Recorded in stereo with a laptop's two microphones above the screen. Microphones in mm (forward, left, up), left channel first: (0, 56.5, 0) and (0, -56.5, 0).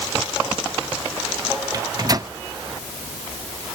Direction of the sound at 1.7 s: 35° right (ahead or behind).